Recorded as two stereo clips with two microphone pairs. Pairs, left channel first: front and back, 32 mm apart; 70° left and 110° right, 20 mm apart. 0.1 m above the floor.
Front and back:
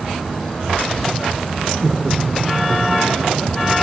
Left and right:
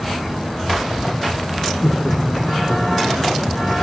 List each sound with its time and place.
1.8 s laughter: 120° left, 5.5 m; by 3.8 s 135° left, 5 m